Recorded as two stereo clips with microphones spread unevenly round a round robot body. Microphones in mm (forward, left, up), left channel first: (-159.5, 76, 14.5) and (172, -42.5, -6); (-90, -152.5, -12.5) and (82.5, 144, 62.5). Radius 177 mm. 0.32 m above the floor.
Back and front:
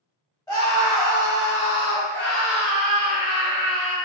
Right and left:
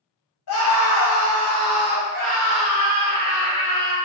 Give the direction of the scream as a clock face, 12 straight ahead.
4 o'clock.